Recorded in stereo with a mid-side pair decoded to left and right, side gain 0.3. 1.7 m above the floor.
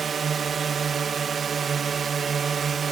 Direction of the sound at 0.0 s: 65° right.